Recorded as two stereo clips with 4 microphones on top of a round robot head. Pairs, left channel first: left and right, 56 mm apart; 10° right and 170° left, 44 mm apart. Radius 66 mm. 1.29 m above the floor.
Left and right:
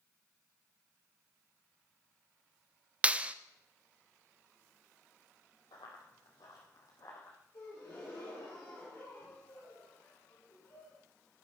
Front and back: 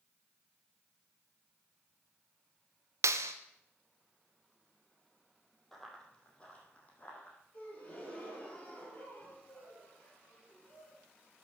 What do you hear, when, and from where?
3.0 s a clap: 160° right, 0.5 m
5.7 s running footsteps: 75° left, 3 m; by 7.4 s 40° left, 4 m
7.5 s a gasp: 40° left, 5 m